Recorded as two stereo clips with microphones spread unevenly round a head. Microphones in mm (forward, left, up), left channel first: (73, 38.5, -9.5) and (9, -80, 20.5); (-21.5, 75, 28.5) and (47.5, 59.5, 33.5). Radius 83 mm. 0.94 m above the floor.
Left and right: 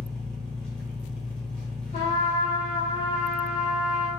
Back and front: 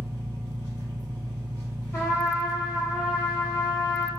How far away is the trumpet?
About 1.3 m.